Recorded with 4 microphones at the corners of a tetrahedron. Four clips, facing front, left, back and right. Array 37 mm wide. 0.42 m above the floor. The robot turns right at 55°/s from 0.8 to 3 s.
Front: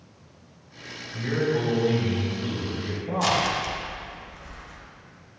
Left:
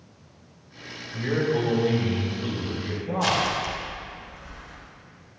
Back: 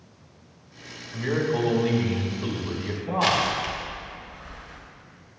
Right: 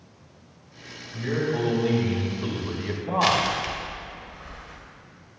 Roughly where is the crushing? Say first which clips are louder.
Right 2 dB, back 1 dB; behind right.